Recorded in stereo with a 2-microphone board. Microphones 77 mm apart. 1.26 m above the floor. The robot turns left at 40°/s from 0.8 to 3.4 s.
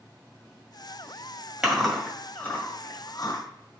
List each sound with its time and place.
1.6 s chewing: 10° right (ahead or behind), 1.9 m; by 3.4 s 50° left (ahead or behind), 1.9 m